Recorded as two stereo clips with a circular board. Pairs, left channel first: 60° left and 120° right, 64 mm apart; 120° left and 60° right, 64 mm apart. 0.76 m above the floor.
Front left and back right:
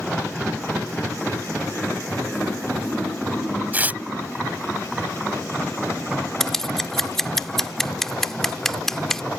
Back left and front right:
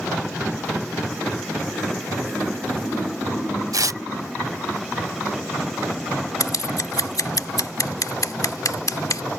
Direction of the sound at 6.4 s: 145° left.